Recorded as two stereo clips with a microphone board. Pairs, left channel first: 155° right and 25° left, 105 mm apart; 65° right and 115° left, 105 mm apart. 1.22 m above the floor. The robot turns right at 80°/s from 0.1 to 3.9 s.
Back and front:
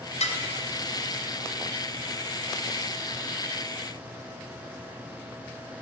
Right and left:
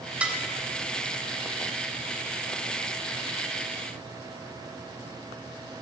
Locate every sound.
0.2 s dishes clattering: 170° right, 4 m; by 0.4 s 155° right, 4 m